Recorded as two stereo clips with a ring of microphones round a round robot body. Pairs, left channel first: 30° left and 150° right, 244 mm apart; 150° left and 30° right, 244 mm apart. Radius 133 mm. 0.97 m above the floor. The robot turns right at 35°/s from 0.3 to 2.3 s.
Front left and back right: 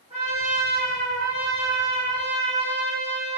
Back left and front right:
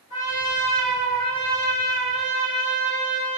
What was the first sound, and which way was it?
A trumpet, 145° left.